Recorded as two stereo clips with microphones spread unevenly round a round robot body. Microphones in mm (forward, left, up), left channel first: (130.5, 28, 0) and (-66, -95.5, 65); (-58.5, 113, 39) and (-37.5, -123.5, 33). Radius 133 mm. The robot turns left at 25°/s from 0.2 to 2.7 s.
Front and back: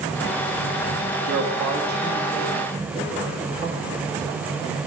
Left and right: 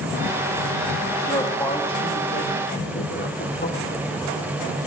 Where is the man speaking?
175° left, 1.8 m; by 4.0 s 140° left, 1.8 m.